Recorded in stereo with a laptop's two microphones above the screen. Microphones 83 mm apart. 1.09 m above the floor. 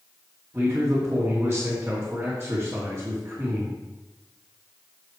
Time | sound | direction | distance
0.5 | a man speaking | 25° right (ahead or behind) | 2 m